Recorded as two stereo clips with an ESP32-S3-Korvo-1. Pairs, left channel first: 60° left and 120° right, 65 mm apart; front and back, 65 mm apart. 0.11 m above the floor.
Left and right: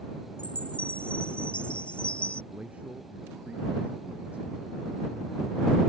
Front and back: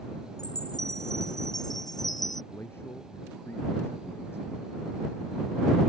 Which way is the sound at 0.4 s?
15° right.